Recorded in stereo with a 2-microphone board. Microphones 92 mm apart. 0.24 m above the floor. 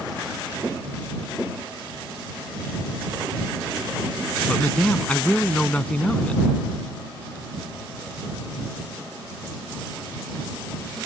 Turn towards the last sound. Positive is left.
turn(degrees=15)  # may be behind; listen again after turning